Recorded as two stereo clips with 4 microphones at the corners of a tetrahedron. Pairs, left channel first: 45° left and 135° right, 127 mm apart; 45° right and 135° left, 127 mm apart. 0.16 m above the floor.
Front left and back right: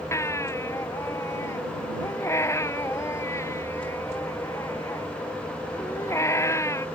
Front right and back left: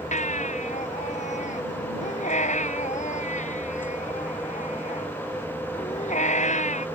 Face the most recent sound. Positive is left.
turn(degrees=-25)